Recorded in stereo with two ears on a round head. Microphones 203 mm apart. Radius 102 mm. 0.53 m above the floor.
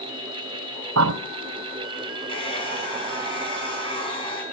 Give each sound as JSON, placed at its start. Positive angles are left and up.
{"t": 1.0, "sound": "a bird", "side_deg": -70, "distance_m": 1.6}
{"t": 2.3, "sound": "a hair dryer", "side_deg": 25, "distance_m": 6.0}